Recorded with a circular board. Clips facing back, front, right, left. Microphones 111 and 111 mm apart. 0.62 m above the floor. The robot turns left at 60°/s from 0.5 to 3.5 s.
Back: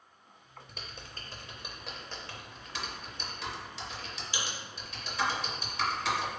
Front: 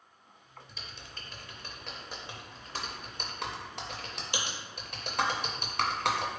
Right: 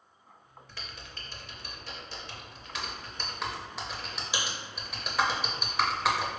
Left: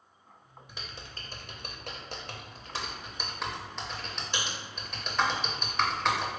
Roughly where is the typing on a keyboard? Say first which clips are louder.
Back 2 dB, left 1 dB; behind.